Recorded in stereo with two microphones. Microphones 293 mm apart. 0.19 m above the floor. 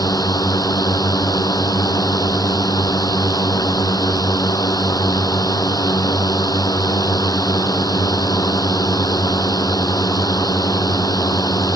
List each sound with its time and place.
0.0 s a drone: 10° left (ahead or behind)